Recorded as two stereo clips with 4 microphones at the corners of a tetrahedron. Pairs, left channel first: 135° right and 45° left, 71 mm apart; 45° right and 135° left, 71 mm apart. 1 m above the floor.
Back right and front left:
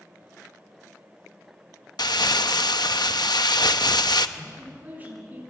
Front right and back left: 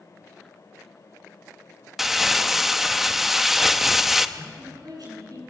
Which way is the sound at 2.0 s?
140° right.